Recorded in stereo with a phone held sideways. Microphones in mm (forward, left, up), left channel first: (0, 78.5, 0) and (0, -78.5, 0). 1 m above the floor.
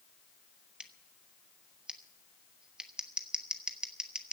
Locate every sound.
0.8 s scissors: 5° right (ahead or behind), 1.1 m